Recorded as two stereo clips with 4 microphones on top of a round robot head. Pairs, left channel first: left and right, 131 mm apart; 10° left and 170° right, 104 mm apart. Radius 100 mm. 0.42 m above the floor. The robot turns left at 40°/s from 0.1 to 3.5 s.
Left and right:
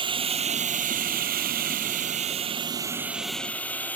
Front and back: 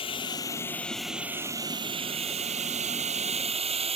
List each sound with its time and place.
0.0 s a drone: 40° right; by 4.0 s 170° left